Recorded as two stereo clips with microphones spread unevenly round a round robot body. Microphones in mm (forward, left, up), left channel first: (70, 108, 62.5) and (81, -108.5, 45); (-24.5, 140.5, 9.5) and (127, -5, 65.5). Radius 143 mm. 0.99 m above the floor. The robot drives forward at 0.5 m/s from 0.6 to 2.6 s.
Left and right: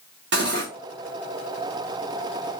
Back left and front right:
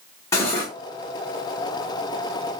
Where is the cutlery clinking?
140° right, 0.8 m; by 0.7 s 145° right, 0.9 m.